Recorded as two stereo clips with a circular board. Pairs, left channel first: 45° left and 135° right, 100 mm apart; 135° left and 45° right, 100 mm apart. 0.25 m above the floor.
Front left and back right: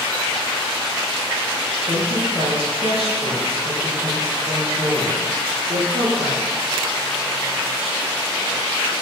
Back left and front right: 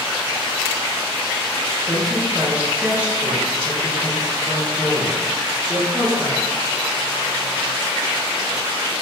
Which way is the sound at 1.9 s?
120° right.